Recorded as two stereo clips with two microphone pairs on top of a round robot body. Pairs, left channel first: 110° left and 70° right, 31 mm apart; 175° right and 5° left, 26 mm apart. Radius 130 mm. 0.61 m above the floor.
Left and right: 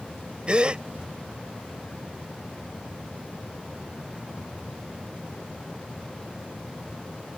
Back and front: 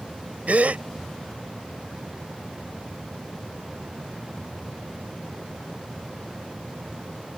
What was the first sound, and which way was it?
A gasp, 10° right.